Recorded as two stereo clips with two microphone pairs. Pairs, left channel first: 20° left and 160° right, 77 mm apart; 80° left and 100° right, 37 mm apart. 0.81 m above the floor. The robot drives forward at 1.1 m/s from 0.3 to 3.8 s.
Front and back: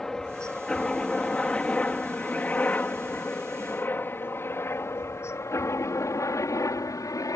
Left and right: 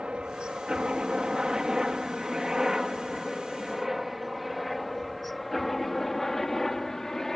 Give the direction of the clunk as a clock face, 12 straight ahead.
No clunk in this recording.